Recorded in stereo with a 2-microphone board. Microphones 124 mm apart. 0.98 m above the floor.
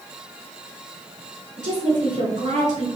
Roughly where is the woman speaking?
Right.